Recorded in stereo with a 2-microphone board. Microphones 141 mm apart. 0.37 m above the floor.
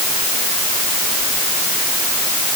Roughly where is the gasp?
No gasp in this recording.